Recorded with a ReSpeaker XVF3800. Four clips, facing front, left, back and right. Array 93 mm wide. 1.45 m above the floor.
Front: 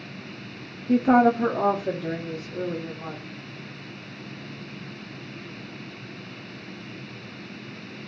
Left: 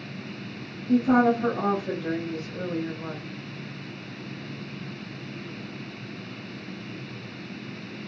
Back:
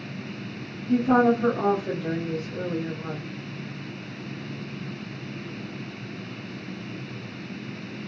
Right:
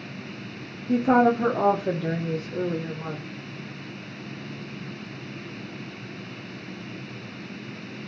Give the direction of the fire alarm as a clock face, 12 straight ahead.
I don't hear a fire alarm.